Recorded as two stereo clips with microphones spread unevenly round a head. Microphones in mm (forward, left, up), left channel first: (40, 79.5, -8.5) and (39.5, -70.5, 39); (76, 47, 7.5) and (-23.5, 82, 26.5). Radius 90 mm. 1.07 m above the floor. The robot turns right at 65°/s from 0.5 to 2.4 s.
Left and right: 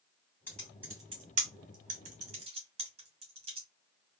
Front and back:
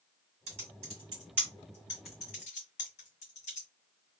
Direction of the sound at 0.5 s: Straight behind.